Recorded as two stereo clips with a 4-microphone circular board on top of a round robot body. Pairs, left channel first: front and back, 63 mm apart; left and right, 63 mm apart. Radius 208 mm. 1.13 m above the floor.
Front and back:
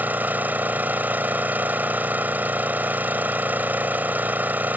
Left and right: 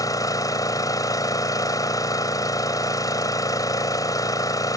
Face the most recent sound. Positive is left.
turn(degrees=115)